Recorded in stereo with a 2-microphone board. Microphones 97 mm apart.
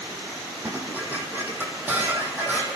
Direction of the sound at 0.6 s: 20° right (ahead or behind).